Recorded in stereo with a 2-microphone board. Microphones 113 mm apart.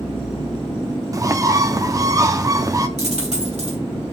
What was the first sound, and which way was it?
A bird, 30° right (ahead or behind).